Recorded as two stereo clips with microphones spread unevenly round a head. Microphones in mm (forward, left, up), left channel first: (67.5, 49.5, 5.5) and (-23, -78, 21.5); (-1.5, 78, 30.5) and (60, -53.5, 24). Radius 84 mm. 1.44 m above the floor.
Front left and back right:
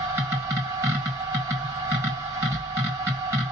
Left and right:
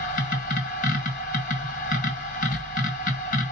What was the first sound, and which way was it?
A machine running, 160° left.